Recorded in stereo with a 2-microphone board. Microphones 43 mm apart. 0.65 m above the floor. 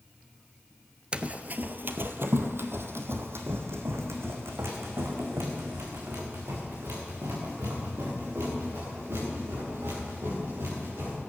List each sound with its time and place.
1.1 s running footsteps: 25° right (ahead or behind), 0.6 m; by 11.1 s 70° right (ahead or behind), 7.5 m